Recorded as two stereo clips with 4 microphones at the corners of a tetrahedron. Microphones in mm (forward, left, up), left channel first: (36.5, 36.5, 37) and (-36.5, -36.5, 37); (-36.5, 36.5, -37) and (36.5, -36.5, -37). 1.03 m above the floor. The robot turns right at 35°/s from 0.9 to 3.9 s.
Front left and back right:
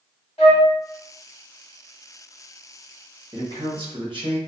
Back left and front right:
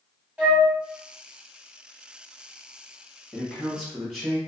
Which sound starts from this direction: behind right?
A man speaking, at 3.3 s.